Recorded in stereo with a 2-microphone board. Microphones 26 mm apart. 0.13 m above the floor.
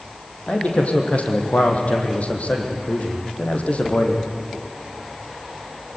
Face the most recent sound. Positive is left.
turn(degrees=55)  # may be behind; listen again after turning